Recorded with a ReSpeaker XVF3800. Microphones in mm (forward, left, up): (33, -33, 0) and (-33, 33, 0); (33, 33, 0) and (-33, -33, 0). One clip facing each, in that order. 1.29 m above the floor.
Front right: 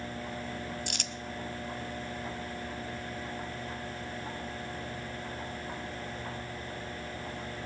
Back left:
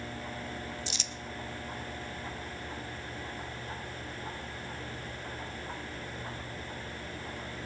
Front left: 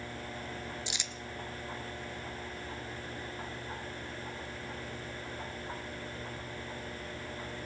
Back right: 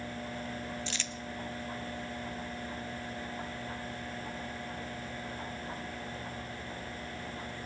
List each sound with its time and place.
0.9 s crumpling: 25° right, 0.6 m